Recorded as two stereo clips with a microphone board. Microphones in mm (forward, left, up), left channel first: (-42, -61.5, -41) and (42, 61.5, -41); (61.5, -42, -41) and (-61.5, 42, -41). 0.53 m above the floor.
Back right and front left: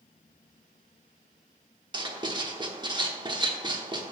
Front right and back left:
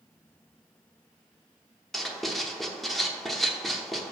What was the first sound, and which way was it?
Writing, 55° left.